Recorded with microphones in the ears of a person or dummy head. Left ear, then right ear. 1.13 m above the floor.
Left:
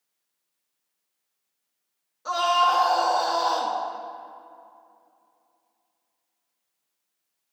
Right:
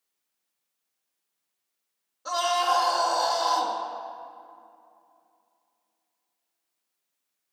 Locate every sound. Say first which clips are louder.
2.2 s a scream: left 4 dB; 5° left (ahead or behind), 1.7 m